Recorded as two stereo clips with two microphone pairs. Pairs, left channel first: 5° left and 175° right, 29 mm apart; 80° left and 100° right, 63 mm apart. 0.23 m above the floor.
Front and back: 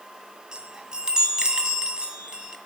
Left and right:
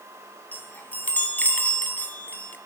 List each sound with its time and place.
0.5 s a chime: 135° left, 1.7 m